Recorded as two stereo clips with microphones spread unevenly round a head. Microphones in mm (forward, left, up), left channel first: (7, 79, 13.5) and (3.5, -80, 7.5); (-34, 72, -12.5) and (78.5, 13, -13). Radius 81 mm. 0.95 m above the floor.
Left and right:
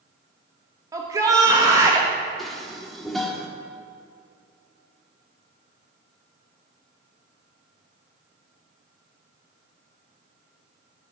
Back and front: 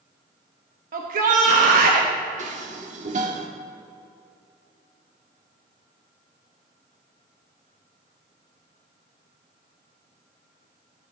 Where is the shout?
25° right, 1.1 m.